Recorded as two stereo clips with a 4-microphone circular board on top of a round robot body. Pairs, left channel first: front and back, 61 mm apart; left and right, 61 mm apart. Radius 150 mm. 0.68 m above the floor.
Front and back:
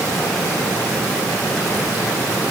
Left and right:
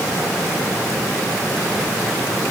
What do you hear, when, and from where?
Only background noise.